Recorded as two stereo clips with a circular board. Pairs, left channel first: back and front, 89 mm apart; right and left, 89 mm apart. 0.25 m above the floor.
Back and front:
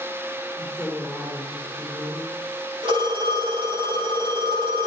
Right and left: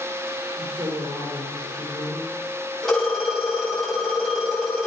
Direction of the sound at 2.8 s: 5° right.